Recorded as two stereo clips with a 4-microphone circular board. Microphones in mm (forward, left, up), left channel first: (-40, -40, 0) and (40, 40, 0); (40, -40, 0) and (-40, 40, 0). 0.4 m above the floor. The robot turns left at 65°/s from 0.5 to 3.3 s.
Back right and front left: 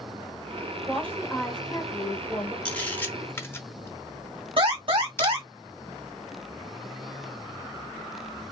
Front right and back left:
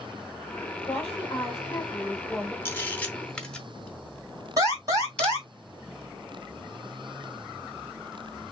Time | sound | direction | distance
0.9 | a woman speaking | 45° right | 1.5 m
2.6 | a camera shutter | 70° right | 0.7 m
4.6 | an alarm | 80° left | 2.5 m